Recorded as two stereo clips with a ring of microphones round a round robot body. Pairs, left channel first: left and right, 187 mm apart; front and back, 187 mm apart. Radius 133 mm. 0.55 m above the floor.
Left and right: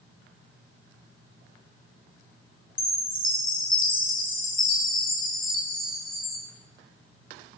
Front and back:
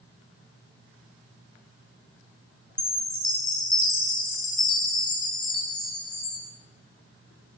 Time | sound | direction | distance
2.8 | a chime | 45° left | 8 m